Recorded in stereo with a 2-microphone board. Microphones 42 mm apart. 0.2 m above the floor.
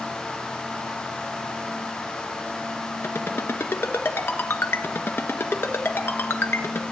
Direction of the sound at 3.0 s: 65° left (ahead or behind).